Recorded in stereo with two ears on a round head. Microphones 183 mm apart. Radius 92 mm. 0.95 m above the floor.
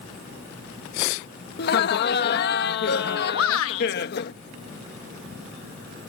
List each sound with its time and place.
1.6 s laughter: 50° left (ahead or behind)
3.3 s a shout: 70° left (ahead or behind)